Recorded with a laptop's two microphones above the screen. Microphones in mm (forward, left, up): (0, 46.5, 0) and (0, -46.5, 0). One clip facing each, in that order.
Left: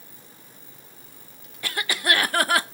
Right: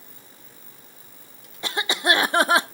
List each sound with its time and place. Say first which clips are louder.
1.6 s a cough: right 3 dB; 25° right (ahead or behind), 0.6 m